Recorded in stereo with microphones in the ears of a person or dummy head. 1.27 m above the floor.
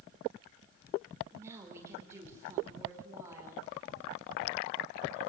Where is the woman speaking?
20° right (ahead or behind), 4 m.